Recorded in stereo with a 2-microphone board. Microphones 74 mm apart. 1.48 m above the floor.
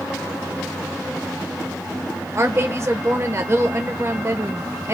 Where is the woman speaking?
40° right (ahead or behind), 1.1 m.